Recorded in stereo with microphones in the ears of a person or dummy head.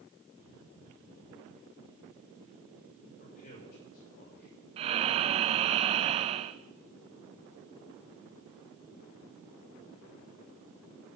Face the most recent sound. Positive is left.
turn(degrees=-30)  # may be behind; listen again after turning